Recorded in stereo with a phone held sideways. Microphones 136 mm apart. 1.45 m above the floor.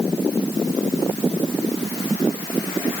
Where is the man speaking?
No man speaking in this recording.